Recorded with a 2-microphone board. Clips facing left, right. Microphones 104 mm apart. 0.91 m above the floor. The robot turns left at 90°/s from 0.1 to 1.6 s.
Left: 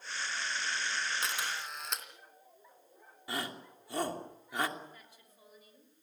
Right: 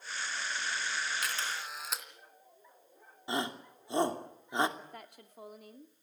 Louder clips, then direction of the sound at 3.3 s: Right 4 dB; 25° right (ahead or behind).